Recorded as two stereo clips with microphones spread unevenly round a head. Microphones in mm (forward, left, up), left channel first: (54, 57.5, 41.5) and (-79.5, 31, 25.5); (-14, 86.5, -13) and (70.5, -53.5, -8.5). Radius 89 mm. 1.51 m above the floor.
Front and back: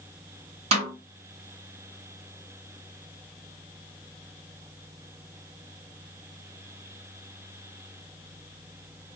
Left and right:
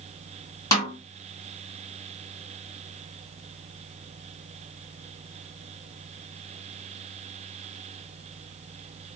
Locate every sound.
0.7 s a snare drum: straight behind, 1.6 m